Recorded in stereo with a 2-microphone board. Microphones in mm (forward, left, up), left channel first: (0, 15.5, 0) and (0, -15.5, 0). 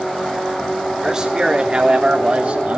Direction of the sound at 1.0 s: 20° right (ahead or behind).